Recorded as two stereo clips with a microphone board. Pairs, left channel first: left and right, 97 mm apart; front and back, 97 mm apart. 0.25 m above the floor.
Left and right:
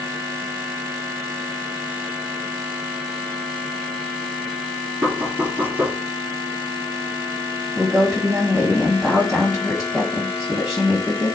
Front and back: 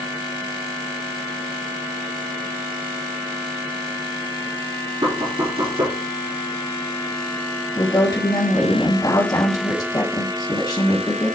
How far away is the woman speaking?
About 1.7 m.